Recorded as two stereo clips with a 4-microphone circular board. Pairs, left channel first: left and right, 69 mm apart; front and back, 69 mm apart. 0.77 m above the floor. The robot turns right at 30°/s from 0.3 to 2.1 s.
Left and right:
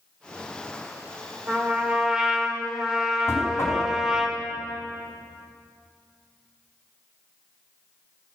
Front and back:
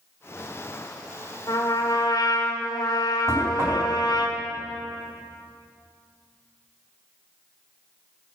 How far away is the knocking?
About 3.5 m.